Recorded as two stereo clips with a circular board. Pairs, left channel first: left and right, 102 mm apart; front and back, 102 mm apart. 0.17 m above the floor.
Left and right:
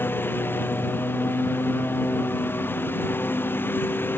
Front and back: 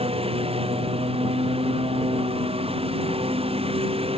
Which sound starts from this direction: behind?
A lawn mower, at 0.0 s.